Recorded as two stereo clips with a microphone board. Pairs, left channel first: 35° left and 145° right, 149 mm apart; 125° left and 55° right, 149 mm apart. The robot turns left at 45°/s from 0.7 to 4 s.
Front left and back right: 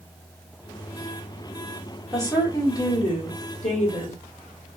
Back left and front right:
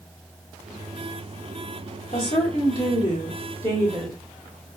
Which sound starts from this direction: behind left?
A woman speaking, at 2.1 s.